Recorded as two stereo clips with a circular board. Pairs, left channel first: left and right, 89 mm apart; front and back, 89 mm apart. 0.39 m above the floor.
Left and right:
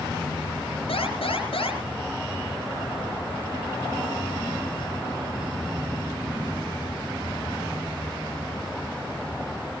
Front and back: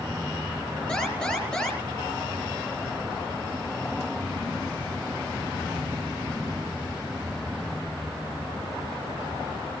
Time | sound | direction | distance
0.9 | an alarm | 80° left | 5.5 m